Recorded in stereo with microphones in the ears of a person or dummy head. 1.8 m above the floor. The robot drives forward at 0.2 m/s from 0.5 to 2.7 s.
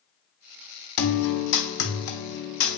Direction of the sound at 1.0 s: 55° left (ahead or behind).